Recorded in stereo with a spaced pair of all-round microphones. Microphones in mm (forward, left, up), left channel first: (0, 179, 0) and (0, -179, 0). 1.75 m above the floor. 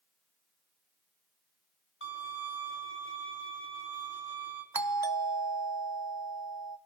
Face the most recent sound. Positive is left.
turn(degrees=-75)  # may be behind; listen again after turning